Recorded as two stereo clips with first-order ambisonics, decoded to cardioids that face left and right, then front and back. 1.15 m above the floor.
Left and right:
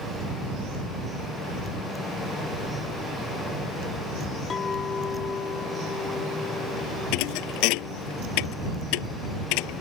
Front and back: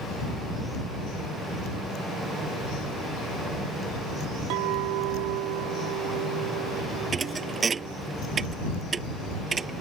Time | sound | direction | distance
4.5 | a clink | 160° left | ?
7.1 | a thud | 110° left | ?